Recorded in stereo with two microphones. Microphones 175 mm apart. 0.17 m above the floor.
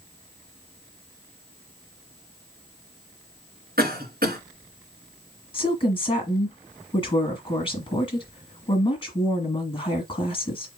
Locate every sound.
3.8 s a cough: 60° right (ahead or behind), 2.5 m
5.5 s a woman speaking: 30° left (ahead or behind), 1.4 m